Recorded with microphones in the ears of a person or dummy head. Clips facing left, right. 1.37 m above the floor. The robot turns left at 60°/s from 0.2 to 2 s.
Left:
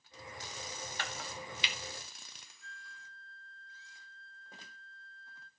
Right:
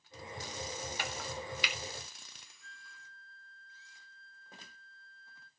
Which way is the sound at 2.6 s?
5° right (ahead or behind).